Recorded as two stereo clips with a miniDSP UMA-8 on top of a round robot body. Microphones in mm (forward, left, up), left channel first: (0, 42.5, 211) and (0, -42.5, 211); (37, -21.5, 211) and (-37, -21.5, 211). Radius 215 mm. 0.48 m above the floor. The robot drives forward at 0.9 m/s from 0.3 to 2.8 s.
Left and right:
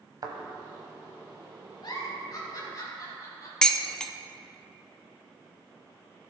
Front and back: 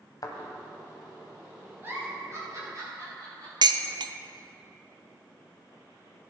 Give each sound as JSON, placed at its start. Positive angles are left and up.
{"t": 0.2, "sound": "a thud", "azimuth_deg": -40, "distance_m": 0.9}
{"t": 1.8, "sound": "a giggle", "azimuth_deg": 120, "distance_m": 2.5}
{"t": 3.6, "sound": "dishes clattering", "azimuth_deg": 170, "distance_m": 0.6}